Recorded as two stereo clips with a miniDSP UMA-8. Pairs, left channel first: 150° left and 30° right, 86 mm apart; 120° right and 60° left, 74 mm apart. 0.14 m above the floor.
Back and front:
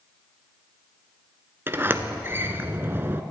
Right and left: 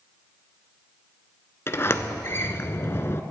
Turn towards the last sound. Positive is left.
turn(degrees=-80)